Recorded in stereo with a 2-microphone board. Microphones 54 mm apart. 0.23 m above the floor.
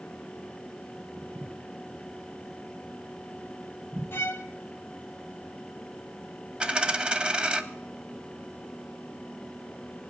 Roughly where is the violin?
Left.